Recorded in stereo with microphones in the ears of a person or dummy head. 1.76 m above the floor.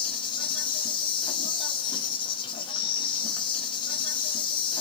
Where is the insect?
30° left (ahead or behind), 0.9 m.